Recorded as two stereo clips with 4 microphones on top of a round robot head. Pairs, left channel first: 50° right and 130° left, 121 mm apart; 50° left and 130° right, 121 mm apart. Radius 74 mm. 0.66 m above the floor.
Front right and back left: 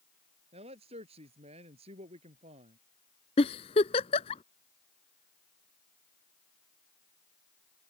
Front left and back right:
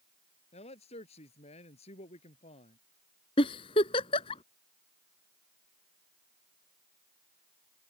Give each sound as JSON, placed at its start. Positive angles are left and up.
{"t": 0.5, "sound": "a man speaking", "azimuth_deg": 90}
{"t": 3.4, "sound": "a giggle", "azimuth_deg": 0}